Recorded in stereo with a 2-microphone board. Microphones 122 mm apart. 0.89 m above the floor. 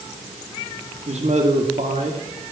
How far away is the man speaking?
About 1.7 m.